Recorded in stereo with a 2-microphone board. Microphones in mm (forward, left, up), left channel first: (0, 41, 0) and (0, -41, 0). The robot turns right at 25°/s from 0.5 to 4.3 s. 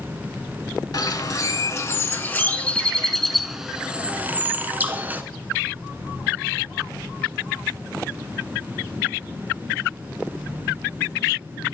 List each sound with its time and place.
0.9 s a bird: 120° left, 0.6 m; by 5.2 s 155° right, 0.6 m